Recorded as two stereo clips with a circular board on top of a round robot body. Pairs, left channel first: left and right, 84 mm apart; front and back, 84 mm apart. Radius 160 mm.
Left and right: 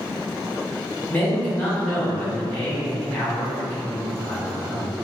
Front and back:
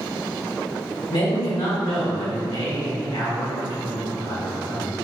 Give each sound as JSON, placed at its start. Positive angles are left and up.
{"t": 1.1, "sound": "a man speaking", "azimuth_deg": 20, "distance_m": 1.7}